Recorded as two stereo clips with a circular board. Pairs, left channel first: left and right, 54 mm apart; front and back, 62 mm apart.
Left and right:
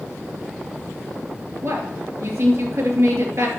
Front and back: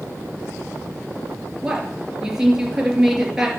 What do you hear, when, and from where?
1.6 s a woman speaking: 100° right, 3 m